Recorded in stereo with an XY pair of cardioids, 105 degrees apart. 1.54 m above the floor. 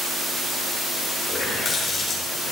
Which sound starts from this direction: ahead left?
A running tap, at 1.3 s.